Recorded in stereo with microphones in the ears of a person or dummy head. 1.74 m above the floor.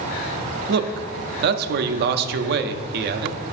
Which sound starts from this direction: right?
A man speaking, at 0.7 s.